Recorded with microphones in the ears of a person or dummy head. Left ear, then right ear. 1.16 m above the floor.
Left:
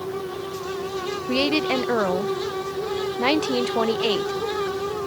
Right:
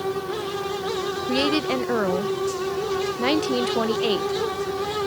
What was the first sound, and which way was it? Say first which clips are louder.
A woman speaking: left 1 dB; 20° left (ahead or behind).